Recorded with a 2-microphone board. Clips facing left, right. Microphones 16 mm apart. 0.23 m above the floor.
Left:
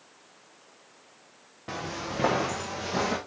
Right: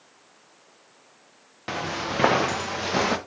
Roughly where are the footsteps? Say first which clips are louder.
Right 6 dB; right.